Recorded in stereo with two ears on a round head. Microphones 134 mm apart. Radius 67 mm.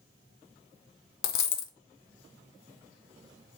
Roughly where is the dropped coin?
Left.